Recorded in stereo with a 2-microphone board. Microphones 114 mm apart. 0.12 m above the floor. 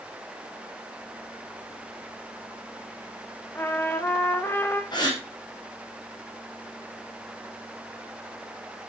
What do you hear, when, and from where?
3.5 s a trumpet: 20° left (ahead or behind), 3 m
4.9 s a gasp: 40° left (ahead or behind), 6 m